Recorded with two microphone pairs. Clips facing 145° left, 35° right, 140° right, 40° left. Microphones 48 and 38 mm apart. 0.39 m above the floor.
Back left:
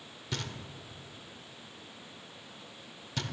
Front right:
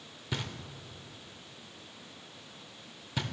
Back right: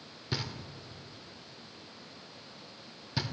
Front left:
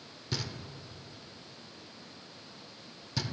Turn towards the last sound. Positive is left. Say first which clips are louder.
# front right 1 dB, back right 1 dB
turn(degrees=-95)